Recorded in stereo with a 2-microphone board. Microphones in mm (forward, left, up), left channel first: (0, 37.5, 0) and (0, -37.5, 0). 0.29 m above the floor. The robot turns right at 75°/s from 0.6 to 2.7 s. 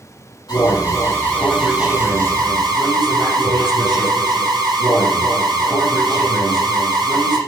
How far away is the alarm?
About 5.5 m.